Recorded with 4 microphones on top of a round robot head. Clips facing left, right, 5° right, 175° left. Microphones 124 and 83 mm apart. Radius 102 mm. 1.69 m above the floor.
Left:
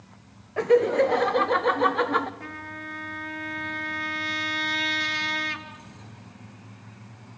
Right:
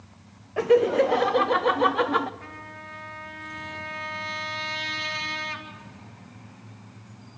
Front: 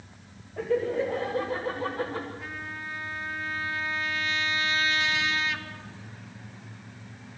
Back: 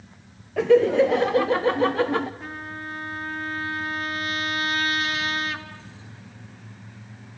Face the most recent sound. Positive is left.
turn(degrees=130)